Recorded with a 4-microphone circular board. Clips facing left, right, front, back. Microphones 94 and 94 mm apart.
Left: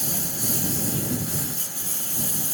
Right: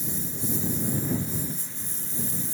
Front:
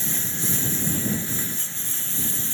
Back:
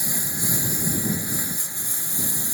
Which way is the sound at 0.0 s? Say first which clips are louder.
Left 1 dB, even; 105° left.